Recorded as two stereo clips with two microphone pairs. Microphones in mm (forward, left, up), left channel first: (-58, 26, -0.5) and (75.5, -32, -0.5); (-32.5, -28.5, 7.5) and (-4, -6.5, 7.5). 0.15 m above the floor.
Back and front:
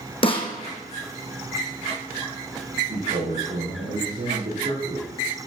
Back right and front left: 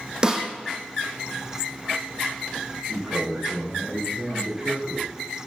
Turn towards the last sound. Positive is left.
turn(degrees=-20)